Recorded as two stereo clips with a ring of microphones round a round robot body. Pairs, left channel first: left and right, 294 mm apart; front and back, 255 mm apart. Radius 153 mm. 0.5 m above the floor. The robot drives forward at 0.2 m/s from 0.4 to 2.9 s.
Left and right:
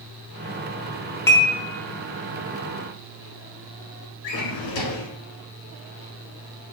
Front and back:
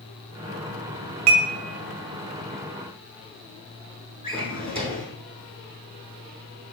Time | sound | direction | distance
1.3 | dishes clattering | 170° left | 0.8 m
4.2 | a drawer | 110° left | 1.2 m